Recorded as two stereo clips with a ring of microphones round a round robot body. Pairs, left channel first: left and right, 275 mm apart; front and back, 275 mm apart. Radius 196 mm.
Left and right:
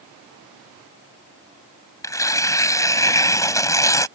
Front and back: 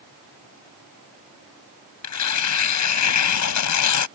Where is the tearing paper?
10° left.